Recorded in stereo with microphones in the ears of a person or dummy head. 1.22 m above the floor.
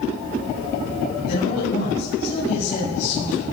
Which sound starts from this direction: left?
A man speaking, at 1.3 s.